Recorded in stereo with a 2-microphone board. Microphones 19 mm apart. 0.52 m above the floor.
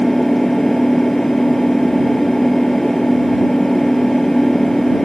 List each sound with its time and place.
0.0 s an engine running: 25° left (ahead or behind)